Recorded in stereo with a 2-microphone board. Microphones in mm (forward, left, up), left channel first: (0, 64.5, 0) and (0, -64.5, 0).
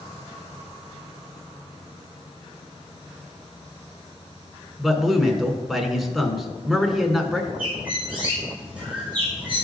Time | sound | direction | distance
4.8 | a man speaking | centre (ahead or behind) | 1.2 m
7.6 | a bird | 15° right (ahead or behind) | 3.5 m